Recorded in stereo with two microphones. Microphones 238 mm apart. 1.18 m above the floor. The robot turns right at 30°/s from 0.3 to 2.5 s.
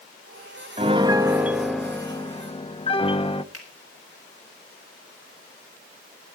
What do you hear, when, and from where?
0.8 s a piano: 30° right, 0.7 m; by 3.4 s 25° left, 0.7 m
3.5 s a finger snap: 70° right (ahead or behind), 4.5 m